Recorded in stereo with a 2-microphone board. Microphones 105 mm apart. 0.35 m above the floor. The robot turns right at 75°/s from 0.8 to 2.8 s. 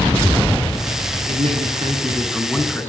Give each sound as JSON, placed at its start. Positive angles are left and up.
{"t": 1.3, "sound": "a man speaking", "azimuth_deg": -95, "distance_m": 4.0}